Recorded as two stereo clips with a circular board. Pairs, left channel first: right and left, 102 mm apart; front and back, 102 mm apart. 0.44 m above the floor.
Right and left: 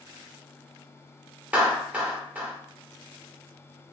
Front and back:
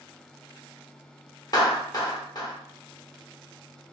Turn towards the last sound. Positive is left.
turn(degrees=20)